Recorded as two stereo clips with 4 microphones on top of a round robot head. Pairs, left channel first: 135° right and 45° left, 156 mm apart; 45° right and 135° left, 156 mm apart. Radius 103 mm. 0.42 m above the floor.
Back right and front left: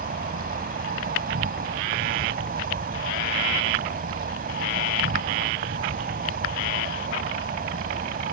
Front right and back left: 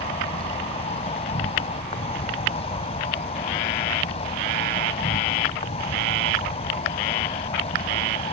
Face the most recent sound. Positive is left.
turn(degrees=10)